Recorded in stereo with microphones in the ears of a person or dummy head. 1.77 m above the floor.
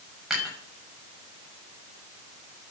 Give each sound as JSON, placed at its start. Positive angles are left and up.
{"t": 0.3, "sound": "dishes clattering", "side_deg": 0, "distance_m": 6.5}